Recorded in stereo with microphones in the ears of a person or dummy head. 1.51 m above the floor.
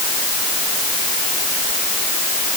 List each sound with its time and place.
Only background noise.